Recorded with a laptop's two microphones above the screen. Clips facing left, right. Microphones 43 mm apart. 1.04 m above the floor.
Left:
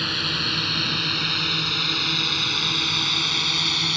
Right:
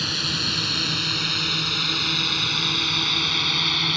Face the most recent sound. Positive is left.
turn(degrees=-10)  # may be behind; listen again after turning